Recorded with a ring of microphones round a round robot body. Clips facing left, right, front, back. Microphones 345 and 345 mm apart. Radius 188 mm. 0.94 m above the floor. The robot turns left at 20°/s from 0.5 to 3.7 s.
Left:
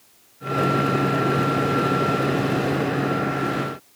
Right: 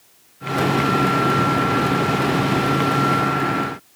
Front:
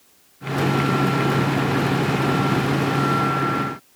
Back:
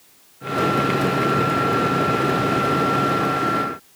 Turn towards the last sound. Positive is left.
No sound to turn to.